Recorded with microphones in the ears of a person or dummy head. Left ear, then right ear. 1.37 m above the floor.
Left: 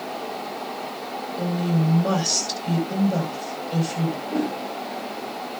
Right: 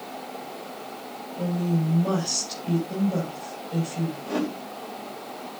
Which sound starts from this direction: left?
A woman speaking, at 1.4 s.